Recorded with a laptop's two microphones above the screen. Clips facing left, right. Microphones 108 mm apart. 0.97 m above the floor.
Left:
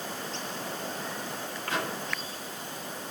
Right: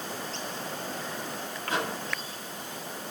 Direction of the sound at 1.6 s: 20° right (ahead or behind).